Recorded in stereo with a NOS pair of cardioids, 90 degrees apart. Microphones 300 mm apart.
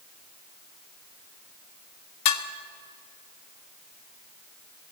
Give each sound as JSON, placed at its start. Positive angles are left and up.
{"t": 2.2, "sound": "dishes clattering", "azimuth_deg": 65, "distance_m": 2.0}